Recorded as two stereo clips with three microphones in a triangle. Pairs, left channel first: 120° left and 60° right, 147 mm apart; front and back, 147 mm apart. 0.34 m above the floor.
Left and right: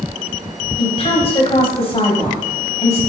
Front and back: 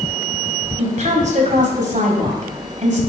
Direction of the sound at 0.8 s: 160° left.